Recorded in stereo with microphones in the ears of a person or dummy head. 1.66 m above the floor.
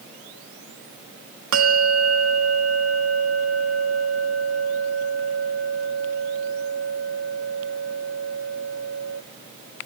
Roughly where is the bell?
Right.